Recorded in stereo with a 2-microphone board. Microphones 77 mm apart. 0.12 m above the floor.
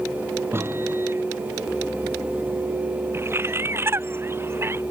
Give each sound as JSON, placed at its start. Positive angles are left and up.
{"t": 0.5, "sound": "a microwave", "side_deg": -30}
{"t": 3.1, "sound": "a bird", "side_deg": -30}